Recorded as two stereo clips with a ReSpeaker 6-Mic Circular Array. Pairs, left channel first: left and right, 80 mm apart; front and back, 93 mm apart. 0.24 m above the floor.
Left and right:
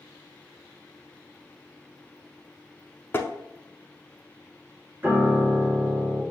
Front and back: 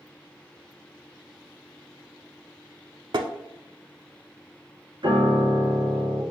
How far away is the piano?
About 1.1 m.